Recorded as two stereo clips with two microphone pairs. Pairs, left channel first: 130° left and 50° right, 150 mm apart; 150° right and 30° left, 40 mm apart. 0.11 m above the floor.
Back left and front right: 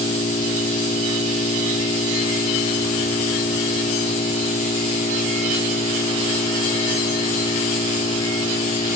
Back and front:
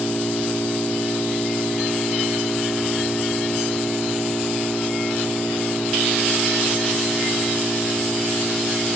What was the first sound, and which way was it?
An engine running, 160° left.